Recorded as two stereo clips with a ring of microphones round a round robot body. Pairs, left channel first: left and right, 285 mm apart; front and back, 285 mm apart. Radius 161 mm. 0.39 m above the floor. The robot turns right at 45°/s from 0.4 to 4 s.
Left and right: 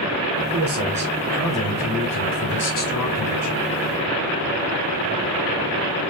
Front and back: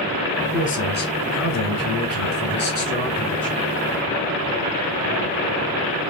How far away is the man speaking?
About 2 m.